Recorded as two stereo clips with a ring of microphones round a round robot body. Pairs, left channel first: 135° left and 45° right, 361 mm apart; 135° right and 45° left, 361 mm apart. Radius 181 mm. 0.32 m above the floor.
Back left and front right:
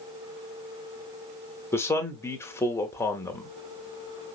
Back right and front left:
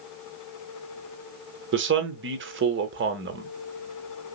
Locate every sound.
1.7 s a man speaking: 60° left, 1.0 m